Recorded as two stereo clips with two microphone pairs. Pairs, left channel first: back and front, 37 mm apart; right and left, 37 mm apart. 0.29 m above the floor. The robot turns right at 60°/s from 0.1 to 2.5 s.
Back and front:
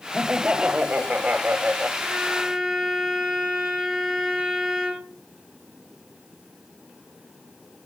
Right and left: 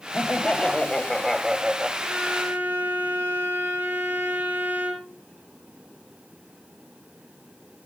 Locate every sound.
0.1 s laughter: 70° right, 1.2 m; by 1.9 s 35° left, 1.2 m
2.0 s a violin: 40° left, 6 m; by 5.2 s 70° left, 6 m